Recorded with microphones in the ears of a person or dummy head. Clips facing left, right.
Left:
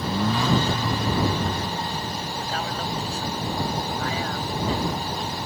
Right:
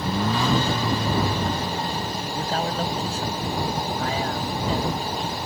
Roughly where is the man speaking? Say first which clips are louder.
Right 7 dB; right.